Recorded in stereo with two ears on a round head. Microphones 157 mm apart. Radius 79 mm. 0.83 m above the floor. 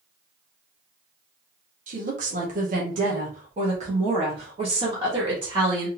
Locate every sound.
1.9 s a woman speaking: 45° right (ahead or behind), 1.4 m; by 5.9 s 20° right (ahead or behind), 1.8 m